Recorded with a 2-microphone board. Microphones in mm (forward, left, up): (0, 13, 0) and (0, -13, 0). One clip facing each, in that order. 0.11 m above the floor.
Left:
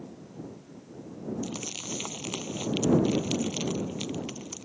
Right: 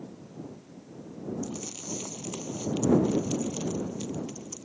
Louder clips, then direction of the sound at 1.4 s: Left 2 dB; 55° left (ahead or behind).